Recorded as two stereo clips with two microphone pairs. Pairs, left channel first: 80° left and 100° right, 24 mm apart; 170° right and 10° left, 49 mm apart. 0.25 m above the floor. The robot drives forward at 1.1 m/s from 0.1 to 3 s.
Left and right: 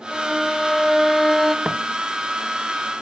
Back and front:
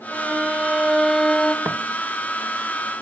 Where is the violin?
Straight ahead, 1.8 m; by 1.6 s 175° right, 1.6 m.